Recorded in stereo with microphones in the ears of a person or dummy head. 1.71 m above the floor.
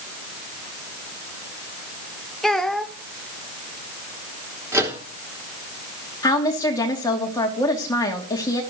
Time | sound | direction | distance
2.4 | a child speaking | centre (ahead or behind) | 0.9 m
4.7 | a microwave | 15° right (ahead or behind) | 3 m
6.2 | a woman speaking | 20° left (ahead or behind) | 3 m